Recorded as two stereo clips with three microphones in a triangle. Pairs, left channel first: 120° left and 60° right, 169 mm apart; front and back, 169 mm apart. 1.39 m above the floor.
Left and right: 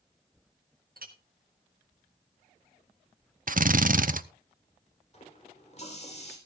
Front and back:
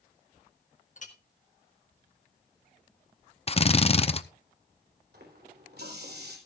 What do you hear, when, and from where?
1.0 s a clink: 40° right, 1.5 m
3.5 s a drill: 45° right, 0.6 m
5.1 s a running tap: 170° left, 3.5 m